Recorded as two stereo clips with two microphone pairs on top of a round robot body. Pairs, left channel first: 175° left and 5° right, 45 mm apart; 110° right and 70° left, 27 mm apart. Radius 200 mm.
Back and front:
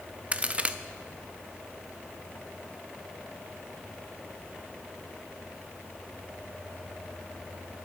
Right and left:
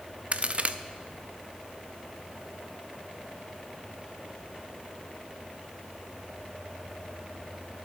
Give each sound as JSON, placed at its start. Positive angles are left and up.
{"t": 0.3, "sound": "a crack", "azimuth_deg": 45, "distance_m": 0.8}